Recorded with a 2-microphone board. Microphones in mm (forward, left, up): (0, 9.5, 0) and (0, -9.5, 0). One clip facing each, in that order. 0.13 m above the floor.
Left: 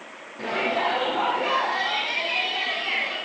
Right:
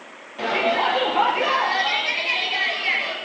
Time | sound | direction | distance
0.4 | a shout | 65° right (ahead or behind) | 4 m